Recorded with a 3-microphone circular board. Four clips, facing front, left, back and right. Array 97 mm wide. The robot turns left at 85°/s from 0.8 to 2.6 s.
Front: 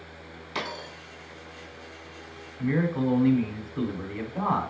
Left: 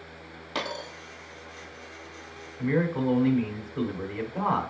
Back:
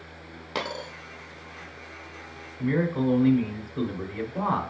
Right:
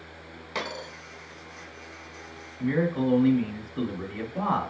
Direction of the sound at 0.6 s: 165° left.